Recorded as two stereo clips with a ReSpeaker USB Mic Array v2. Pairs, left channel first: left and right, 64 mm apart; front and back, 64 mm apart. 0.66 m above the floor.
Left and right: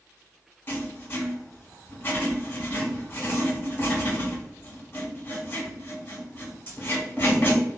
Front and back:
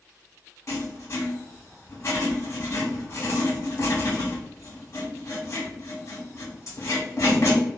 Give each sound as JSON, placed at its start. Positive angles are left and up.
{"t": 0.7, "sound": "writing", "azimuth_deg": 40, "distance_m": 1.2}